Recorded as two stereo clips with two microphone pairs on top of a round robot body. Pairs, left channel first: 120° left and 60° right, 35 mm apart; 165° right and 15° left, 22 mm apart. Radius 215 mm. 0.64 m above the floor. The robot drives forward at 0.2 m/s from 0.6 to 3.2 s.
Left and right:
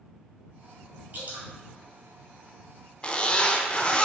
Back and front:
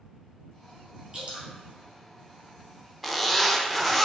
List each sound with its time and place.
1.1 s dripping: 35° right, 1.9 m
3.0 s a zipper: 125° left, 1.0 m; by 4.1 s 130° left, 1.0 m